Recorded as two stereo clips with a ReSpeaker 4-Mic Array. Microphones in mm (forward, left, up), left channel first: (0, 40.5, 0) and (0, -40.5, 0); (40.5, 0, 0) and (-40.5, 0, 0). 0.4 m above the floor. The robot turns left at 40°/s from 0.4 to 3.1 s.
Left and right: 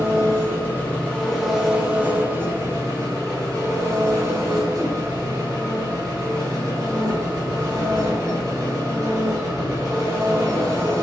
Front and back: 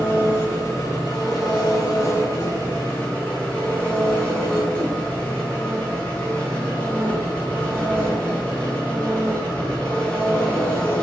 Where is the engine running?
40° left, 0.9 m; by 11.0 s 65° right, 0.9 m.